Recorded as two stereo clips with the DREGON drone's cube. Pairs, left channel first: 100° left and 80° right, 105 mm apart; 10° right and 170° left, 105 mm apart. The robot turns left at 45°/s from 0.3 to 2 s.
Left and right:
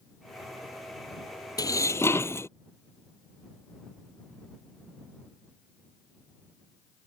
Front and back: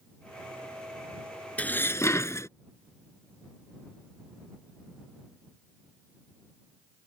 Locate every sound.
1.6 s dishes clattering: 60° left; by 2.5 s 45° left